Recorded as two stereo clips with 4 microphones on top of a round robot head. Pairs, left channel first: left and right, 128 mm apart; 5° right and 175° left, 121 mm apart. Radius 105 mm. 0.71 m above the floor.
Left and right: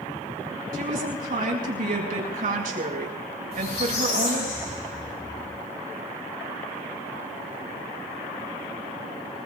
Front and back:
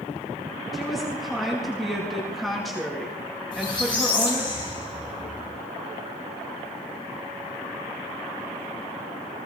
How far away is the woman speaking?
About 5.5 m.